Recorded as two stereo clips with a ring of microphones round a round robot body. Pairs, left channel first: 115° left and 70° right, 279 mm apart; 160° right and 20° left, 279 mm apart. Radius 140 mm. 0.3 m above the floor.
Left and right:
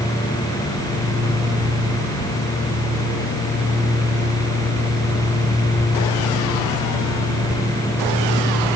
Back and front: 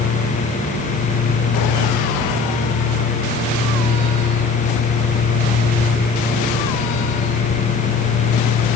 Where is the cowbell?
No cowbell in this recording.